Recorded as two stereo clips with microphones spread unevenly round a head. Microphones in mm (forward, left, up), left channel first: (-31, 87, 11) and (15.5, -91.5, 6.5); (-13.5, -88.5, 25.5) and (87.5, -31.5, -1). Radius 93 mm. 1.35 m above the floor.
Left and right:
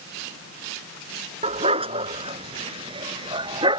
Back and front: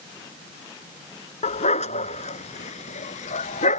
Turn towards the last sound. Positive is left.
turn(degrees=-145)